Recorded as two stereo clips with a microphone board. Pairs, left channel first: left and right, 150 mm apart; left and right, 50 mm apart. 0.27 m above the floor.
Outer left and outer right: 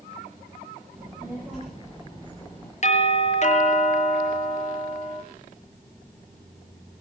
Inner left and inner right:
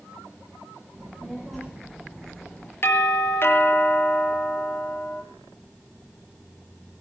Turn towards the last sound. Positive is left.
turn(degrees=50)  # may be behind; listen again after turning